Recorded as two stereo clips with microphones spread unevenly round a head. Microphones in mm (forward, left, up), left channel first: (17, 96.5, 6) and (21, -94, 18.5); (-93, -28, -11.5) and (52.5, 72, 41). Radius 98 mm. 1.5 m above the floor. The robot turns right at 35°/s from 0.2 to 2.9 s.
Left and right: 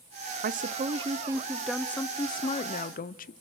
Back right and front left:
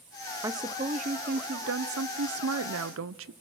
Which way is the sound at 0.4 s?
45° right.